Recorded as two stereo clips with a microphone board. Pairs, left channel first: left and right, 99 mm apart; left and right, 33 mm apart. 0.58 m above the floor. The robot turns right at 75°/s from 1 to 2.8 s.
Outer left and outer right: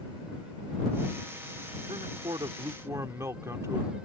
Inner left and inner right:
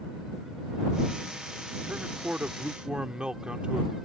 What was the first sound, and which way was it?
A man speaking, 105° right.